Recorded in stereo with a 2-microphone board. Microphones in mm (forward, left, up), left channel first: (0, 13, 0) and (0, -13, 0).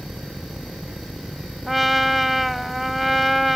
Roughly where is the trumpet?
Centre.